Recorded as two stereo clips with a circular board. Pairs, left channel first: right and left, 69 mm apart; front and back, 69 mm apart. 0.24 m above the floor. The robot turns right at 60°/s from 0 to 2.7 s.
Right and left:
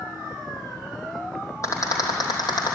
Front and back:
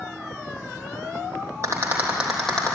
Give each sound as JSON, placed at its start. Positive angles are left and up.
{"t": 1.6, "sound": "a rattle", "azimuth_deg": -135, "distance_m": 3.0}